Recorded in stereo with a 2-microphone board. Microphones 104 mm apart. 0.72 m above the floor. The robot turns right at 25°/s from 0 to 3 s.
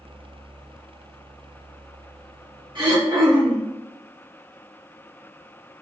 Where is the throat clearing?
50° right (ahead or behind), 1.3 m; by 3.7 s 45° right (ahead or behind), 1.3 m.